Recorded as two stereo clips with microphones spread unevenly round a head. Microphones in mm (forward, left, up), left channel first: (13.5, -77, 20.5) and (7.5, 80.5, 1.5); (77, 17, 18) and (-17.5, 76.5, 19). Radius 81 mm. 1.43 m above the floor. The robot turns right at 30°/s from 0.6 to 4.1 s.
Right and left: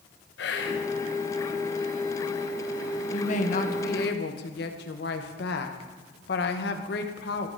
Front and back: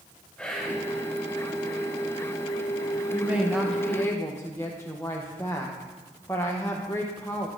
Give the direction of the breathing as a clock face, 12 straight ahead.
I don't hear breathing.